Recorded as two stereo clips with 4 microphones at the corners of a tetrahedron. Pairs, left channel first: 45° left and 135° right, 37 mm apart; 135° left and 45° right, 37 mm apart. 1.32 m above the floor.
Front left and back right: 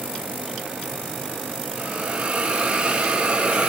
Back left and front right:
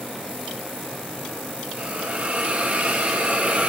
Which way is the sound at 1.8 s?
85° right.